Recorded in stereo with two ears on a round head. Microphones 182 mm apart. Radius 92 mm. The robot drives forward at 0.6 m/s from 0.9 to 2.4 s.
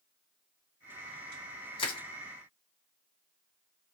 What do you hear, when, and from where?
1.8 s crushing: 25° left (ahead or behind), 1.2 m